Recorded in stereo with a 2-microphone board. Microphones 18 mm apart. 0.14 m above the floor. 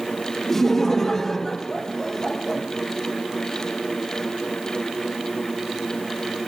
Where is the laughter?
25° left (ahead or behind), 3.5 m.